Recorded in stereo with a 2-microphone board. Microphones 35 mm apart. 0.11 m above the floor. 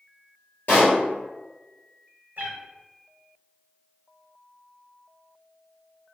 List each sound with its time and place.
0.7 s a pop: 50° left (ahead or behind), 1.4 m
2.4 s a cat meowing: 70° right (ahead or behind), 0.9 m